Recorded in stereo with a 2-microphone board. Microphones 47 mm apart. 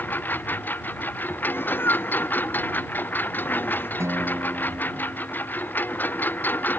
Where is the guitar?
65° right (ahead or behind).